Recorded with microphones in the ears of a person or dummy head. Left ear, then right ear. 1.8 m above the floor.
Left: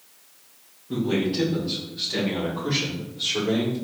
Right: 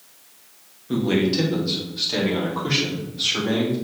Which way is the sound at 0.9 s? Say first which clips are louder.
Right 4 dB; 60° right (ahead or behind).